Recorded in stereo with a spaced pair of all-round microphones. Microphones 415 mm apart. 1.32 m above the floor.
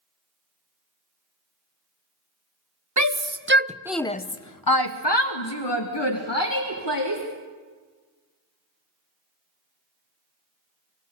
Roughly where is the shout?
Right.